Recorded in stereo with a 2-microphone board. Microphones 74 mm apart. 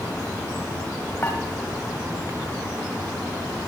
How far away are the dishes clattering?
About 1.4 m.